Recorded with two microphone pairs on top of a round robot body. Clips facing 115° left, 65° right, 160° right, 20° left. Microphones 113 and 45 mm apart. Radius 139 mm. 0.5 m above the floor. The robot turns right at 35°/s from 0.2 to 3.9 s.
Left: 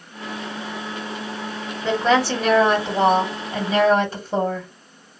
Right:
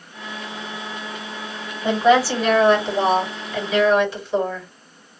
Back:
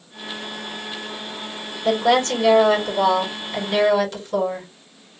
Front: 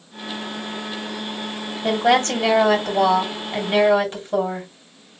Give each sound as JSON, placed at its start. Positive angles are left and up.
{"t": 1.8, "sound": "a woman speaking", "azimuth_deg": 5, "distance_m": 2.0}